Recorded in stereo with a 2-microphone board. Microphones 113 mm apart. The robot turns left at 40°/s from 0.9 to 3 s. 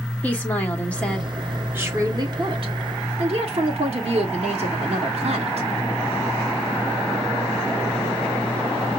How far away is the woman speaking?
About 1.4 m.